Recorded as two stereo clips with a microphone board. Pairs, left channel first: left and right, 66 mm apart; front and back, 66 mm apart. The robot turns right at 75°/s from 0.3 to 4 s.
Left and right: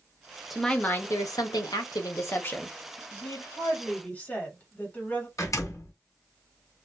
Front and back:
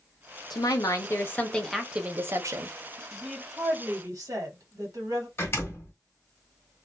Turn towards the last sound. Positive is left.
turn(degrees=50)